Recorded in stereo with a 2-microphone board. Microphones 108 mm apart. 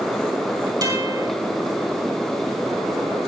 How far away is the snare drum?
No snare drum in this recording.